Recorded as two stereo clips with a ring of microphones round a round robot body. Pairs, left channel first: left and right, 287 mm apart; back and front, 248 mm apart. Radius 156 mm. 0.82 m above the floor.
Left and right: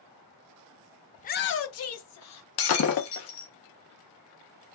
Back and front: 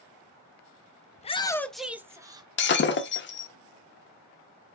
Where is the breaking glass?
130° left, 0.7 m.